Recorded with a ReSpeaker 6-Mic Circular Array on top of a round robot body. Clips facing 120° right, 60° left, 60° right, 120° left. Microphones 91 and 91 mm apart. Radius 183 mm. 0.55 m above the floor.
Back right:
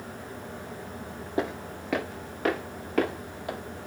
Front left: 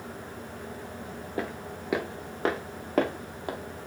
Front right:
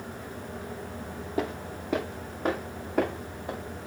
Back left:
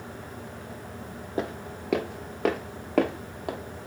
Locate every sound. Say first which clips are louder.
1.4 s footsteps: back right 4 dB, even; 175° left, 0.5 m; by 3.6 s 120° left, 1.4 m